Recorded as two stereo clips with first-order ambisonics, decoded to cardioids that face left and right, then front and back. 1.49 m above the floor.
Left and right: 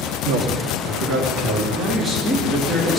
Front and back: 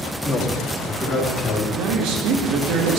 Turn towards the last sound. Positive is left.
turn(degrees=-170)